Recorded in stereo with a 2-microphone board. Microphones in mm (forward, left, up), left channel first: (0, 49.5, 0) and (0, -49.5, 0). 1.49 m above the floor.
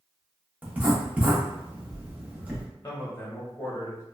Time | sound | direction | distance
0.6 | writing | 15° right (ahead or behind) | 0.8 m
2.8 | a man speaking | 30° left (ahead or behind) | 1.2 m